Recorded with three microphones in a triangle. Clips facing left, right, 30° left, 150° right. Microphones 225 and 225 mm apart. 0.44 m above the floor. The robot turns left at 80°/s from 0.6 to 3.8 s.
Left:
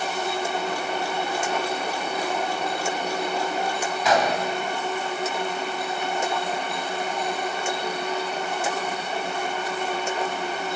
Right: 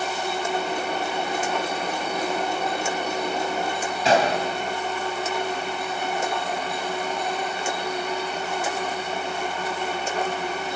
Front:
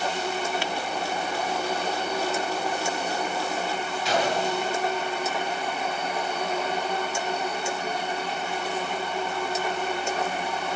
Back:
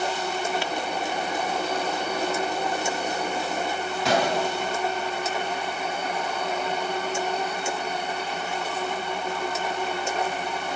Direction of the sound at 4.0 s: 150° right.